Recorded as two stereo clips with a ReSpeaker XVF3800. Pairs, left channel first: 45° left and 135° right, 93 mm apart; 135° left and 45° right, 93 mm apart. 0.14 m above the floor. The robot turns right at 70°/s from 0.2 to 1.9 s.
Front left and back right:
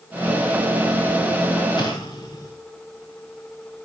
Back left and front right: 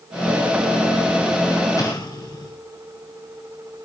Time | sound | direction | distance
1.8 | an explosion | 85° left | 7.5 m